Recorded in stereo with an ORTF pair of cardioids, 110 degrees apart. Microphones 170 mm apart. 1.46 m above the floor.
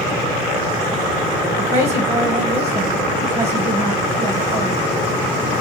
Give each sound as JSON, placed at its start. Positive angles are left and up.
{"t": 1.6, "sound": "a woman speaking", "azimuth_deg": -40, "distance_m": 1.1}